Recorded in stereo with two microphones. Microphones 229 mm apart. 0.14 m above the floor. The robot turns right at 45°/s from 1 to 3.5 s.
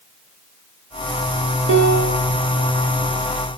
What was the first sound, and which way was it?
A piano, 60° right (ahead or behind).